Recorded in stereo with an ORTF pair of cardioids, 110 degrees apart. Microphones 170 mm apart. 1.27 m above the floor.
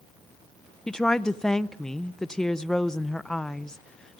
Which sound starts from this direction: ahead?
A woman speaking, at 0.9 s.